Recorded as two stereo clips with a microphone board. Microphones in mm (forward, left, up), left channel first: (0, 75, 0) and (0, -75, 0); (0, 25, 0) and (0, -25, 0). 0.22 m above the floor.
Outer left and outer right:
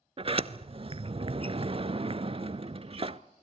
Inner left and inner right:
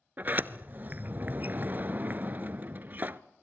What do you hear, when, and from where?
0.2 s a sliding door: 40° right (ahead or behind), 0.7 m